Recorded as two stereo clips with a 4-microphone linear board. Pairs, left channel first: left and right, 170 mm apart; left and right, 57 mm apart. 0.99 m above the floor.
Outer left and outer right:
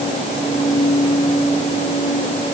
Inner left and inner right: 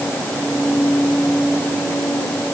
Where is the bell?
No bell in this recording.